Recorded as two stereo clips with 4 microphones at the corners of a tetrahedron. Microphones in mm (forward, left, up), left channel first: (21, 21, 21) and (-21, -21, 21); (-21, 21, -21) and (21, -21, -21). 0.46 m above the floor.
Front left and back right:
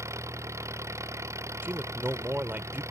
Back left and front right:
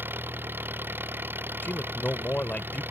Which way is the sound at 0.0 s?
100° right.